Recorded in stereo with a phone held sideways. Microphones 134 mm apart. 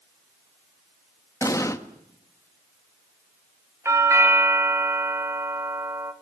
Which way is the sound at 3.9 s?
20° right (ahead or behind).